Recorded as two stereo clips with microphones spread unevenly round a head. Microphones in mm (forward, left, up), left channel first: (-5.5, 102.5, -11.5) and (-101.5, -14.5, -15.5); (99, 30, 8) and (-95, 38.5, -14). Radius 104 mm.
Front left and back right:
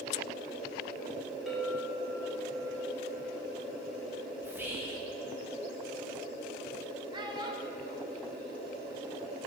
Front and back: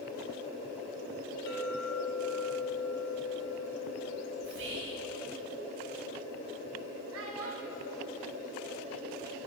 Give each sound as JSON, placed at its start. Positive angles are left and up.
{"t": 1.5, "sound": "a clink", "azimuth_deg": -40, "distance_m": 1.2}
{"t": 4.4, "sound": "whispering", "azimuth_deg": 155, "distance_m": 1.0}
{"t": 7.1, "sound": "a child speaking", "azimuth_deg": 170, "distance_m": 0.7}